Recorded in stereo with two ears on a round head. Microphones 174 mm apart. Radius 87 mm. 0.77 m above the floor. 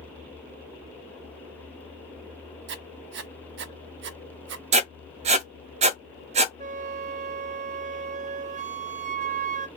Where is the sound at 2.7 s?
60° right (ahead or behind), 0.9 m.